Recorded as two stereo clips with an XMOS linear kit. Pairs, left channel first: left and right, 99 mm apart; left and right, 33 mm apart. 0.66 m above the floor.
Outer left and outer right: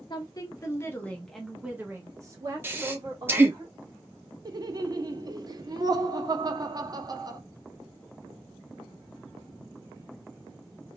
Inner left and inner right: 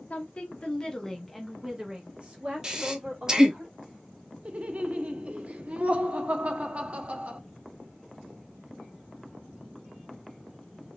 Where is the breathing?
25° right (ahead or behind), 0.8 m.